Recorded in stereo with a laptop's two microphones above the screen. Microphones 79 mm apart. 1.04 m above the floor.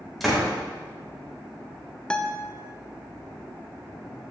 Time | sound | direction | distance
0.2 | a door slam | centre (ahead or behind) | 2.5 m
2.1 | a guitar | 10° left (ahead or behind) | 0.8 m